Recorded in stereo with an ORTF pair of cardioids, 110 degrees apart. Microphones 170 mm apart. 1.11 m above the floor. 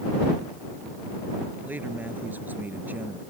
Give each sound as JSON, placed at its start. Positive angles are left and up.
{"t": 1.6, "sound": "a man speaking", "azimuth_deg": -10}